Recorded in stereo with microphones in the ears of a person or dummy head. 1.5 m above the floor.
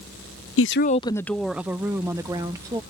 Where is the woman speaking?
75° left (ahead or behind); by 2.8 s 20° right (ahead or behind).